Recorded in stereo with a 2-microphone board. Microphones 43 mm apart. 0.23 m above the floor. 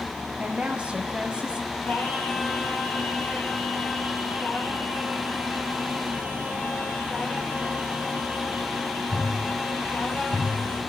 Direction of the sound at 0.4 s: 25° right (ahead or behind).